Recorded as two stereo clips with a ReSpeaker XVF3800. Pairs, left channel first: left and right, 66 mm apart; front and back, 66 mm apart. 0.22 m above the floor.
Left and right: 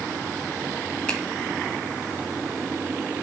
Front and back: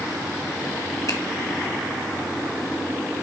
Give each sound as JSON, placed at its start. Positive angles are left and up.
{"t": 1.1, "sound": "a finger snap", "azimuth_deg": 15, "distance_m": 2.0}